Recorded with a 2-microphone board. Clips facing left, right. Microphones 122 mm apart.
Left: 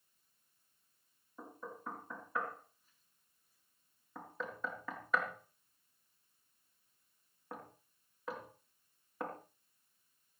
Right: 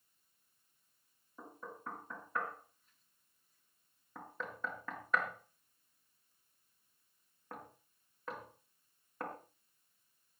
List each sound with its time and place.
1.4 s knocking: 5° left (ahead or behind), 4 m